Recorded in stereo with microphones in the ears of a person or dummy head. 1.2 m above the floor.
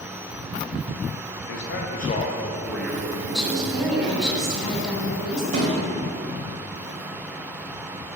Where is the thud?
40° right (ahead or behind), 1.7 m.